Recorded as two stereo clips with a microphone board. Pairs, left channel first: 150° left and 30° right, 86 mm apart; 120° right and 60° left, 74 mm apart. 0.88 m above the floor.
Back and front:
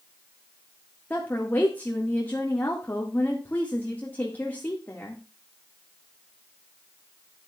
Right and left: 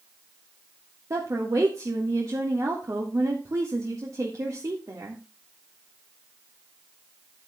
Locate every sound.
1.1 s a woman speaking: 85° left, 1.6 m